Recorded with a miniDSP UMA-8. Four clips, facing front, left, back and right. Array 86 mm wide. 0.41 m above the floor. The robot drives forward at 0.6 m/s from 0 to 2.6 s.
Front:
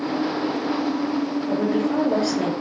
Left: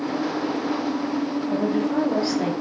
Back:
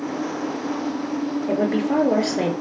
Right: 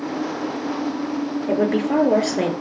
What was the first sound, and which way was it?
A woman speaking, 120° right.